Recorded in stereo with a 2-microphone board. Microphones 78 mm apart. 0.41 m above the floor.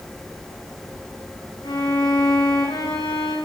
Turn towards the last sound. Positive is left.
turn(degrees=75)  # may be behind; listen again after turning